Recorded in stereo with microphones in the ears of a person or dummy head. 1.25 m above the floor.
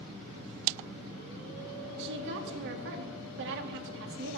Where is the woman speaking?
65° right (ahead or behind), 1.8 m.